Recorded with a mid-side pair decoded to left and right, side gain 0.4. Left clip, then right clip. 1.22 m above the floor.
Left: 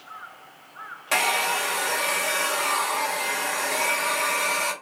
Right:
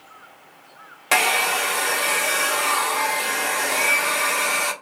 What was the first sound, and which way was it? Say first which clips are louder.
A hair dryer: right 4 dB; 55° right.